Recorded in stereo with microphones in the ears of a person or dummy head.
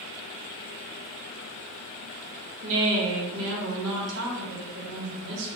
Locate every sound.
2.6 s a woman speaking: 65° right (ahead or behind), 1.3 m